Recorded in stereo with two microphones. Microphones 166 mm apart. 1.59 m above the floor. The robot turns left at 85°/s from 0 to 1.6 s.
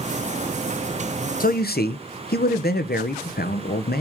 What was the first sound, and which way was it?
A man speaking, 55° left (ahead or behind).